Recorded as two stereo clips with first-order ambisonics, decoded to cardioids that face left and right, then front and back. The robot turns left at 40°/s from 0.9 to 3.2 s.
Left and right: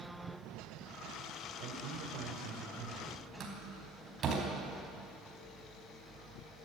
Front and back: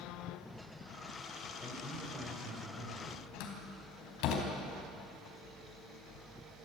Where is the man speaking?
80° right, 3.5 m; by 3.3 s 145° right, 3.5 m.